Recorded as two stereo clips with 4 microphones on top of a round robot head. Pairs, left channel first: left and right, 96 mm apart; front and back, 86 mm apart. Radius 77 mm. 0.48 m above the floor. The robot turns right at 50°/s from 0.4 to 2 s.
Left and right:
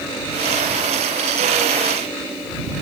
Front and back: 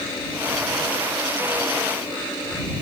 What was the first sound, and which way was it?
Only background noise.